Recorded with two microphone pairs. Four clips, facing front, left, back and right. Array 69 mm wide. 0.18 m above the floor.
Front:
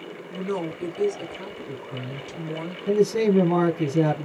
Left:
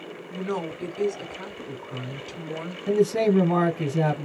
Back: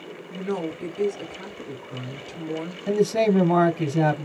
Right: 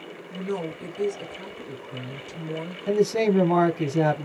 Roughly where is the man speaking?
Behind.